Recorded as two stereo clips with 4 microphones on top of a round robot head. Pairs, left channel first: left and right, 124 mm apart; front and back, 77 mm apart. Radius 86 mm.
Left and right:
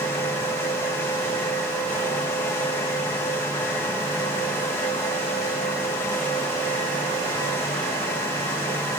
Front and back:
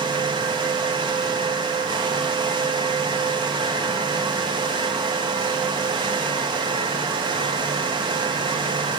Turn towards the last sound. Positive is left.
No sound to turn to.